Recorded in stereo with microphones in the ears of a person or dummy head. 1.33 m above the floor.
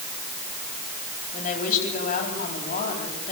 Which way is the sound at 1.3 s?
45° left (ahead or behind).